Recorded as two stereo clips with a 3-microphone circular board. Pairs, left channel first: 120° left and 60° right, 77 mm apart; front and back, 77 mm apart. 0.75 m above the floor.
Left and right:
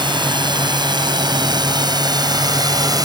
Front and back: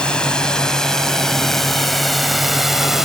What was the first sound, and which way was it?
A drone, 80° right.